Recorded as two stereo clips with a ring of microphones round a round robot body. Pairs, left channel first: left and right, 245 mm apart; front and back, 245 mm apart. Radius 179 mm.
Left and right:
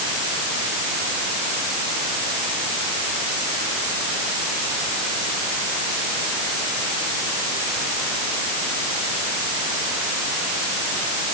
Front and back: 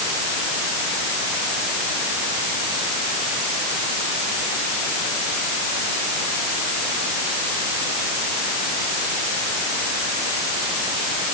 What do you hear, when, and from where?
Only background noise.